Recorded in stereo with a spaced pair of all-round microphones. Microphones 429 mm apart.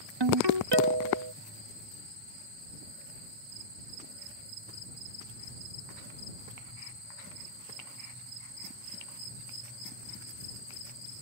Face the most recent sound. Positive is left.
turn(degrees=-70)  # may be behind; listen again after turning